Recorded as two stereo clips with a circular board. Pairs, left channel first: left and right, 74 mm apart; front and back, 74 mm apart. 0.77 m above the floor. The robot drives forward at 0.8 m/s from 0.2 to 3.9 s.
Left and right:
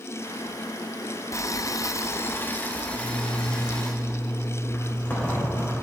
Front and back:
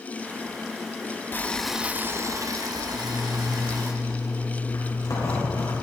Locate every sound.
1.3 s boiling: 55° left, 0.6 m; by 3.9 s 165° left, 1.9 m
2.9 s a zipper: 25° left, 4.5 m; by 5.7 s 30° left, 4 m